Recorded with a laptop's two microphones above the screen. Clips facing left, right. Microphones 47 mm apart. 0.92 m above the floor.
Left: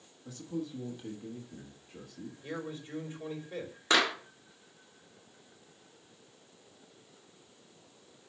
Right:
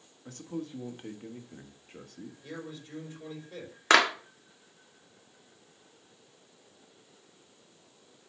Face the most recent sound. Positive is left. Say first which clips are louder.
# right 5 dB
turn(degrees=-80)